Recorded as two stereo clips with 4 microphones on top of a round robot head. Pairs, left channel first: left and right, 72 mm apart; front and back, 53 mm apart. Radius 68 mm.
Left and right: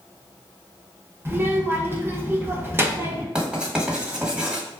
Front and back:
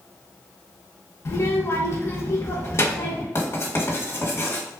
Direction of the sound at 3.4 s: 15° right.